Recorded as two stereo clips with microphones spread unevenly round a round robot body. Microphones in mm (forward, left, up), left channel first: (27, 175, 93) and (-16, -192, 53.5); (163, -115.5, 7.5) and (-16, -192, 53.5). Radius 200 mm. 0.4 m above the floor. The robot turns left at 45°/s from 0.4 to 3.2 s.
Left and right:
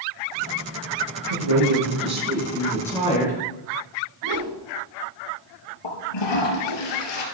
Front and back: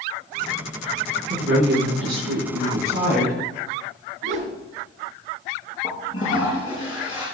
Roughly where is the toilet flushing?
Left.